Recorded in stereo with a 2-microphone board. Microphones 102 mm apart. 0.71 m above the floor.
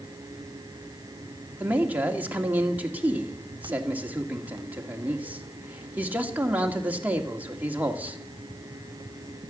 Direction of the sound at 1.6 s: 15° right (ahead or behind).